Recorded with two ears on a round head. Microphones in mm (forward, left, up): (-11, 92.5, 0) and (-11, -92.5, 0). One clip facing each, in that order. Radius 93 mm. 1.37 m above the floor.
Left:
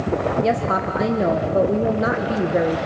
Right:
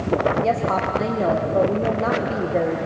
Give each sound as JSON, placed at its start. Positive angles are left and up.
{"t": 0.4, "sound": "a woman speaking", "side_deg": 20, "distance_m": 1.2}